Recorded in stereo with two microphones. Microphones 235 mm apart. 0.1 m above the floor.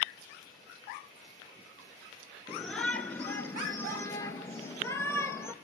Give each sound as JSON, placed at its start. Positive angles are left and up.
{"t": 2.5, "sound": "a shout", "side_deg": 0, "distance_m": 1.3}